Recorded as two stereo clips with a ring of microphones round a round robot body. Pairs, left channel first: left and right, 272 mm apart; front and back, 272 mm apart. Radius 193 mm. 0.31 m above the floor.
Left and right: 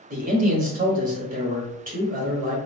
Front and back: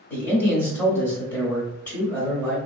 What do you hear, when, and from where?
0.1 s a man speaking: 75° right, 1.0 m